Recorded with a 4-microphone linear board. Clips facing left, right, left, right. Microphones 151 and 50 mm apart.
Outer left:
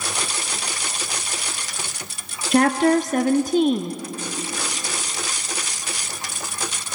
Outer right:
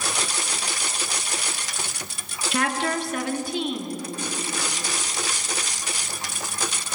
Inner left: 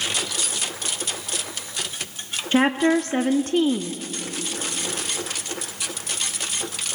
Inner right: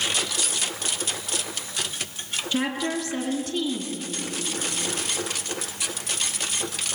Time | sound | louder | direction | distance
2.5 | a woman speaking | outer left 9 dB, inner left 8 dB | 45° left (ahead or behind) | 1.0 m